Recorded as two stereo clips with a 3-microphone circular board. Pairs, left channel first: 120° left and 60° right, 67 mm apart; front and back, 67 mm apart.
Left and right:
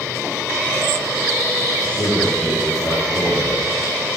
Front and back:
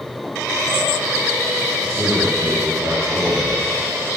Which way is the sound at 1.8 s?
130° left.